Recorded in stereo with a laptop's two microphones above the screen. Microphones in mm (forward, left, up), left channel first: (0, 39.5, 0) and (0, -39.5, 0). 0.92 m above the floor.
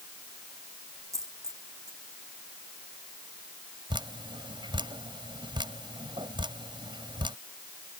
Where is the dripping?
80° right.